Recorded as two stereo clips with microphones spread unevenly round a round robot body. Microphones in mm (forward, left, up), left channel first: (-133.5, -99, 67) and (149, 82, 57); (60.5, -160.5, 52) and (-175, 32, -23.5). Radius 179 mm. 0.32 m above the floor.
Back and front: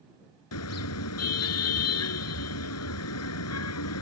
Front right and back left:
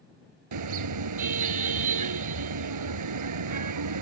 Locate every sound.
0.5 s a car horn: 165° left